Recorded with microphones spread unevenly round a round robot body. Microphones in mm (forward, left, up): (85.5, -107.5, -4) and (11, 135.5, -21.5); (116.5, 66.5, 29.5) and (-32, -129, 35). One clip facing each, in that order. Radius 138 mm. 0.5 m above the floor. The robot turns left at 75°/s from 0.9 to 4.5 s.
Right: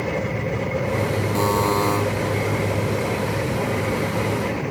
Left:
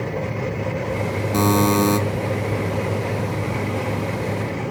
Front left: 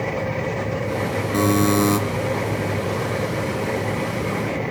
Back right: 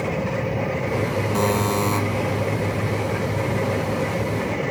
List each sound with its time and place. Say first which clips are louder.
1.3 s a buzzer: left 6 dB, front left 6 dB; 120° left, 1.8 m; by 2.0 s 70° left, 1.8 m